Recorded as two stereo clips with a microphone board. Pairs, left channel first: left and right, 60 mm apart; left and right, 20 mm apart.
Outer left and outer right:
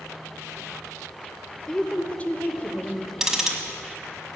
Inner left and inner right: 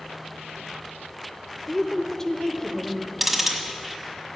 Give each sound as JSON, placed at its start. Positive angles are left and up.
{"t": 1.7, "sound": "a woman speaking", "side_deg": 15, "distance_m": 1.1}
{"t": 3.2, "sound": "ticking", "side_deg": -10, "distance_m": 1.5}